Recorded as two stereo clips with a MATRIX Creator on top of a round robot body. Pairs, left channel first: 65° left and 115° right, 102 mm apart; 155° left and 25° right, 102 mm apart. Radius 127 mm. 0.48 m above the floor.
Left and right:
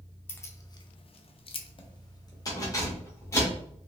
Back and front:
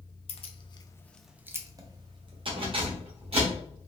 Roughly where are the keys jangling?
Behind left.